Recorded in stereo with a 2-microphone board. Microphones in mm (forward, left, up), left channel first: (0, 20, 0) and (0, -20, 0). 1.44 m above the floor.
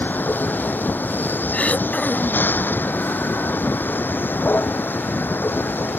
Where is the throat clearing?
40° left (ahead or behind).